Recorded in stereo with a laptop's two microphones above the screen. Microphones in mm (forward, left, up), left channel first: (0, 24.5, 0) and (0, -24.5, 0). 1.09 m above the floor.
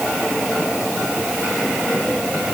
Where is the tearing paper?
No tearing paper in this recording.